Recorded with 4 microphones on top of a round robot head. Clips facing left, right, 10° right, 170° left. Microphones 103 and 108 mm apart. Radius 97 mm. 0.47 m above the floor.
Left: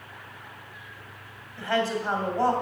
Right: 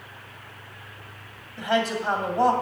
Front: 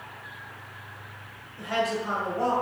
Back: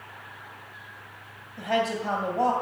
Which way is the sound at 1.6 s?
160° right.